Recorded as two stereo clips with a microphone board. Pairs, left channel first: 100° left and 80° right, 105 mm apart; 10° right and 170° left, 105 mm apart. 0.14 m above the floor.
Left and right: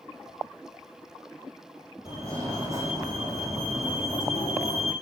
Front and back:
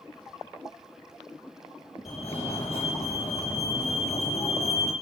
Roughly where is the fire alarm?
Ahead right.